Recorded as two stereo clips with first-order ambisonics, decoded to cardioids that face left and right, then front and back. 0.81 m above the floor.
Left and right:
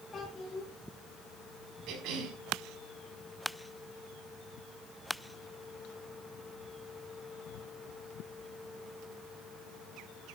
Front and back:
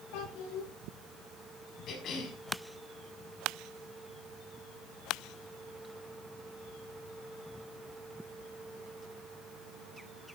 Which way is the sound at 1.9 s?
55° right.